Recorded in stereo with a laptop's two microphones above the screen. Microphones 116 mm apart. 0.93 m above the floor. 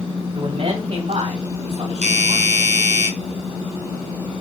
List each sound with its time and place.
0.3 s a man speaking: 50° right (ahead or behind), 6 m; by 2.6 s 60° right (ahead or behind), 7.5 m
2.0 s a doorbell: 70° right (ahead or behind), 5 m